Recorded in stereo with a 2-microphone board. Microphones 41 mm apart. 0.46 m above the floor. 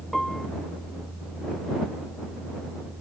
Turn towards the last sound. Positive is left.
turn(degrees=10)  # may be behind; listen again after turning